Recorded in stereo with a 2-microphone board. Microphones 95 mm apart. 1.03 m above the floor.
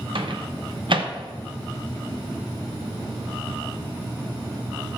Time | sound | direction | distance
0.1 | a microwave | 60° right (ahead or behind) | 0.8 m